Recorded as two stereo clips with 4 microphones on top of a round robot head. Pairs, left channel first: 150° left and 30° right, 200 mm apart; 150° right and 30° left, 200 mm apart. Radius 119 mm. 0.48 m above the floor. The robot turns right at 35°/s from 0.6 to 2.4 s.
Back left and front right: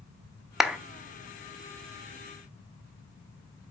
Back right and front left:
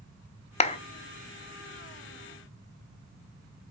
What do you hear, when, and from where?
0.6 s a clap: 120° right, 0.9 m; by 0.8 s 110° right, 0.9 m